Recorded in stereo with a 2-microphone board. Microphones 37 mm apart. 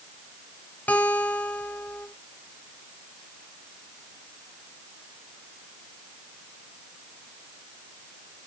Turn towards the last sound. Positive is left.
turn(degrees=50)  # may be behind; listen again after turning